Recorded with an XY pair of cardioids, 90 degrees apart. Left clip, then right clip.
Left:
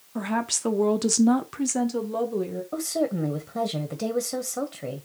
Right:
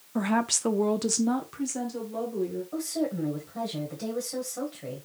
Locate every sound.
0.1 s a woman speaking: 20° right, 0.7 m; by 2.6 s 75° left, 1.1 m
2.7 s a woman speaking: 65° left, 1.0 m